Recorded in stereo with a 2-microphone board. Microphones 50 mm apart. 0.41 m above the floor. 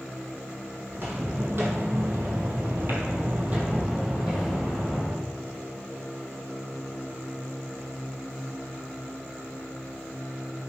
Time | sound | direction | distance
0.9 | footsteps | 40° right (ahead or behind) | 1.1 m